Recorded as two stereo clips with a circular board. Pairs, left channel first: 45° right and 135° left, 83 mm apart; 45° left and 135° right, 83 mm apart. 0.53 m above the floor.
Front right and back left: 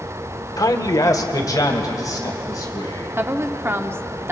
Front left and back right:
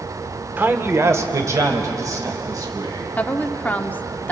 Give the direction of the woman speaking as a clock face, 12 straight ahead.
9 o'clock.